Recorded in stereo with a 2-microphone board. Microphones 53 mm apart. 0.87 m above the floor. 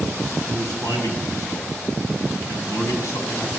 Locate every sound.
0.5 s a man speaking: 60° left (ahead or behind), 6.5 m